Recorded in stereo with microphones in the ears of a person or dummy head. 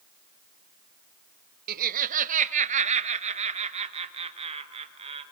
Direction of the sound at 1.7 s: 55° right (ahead or behind).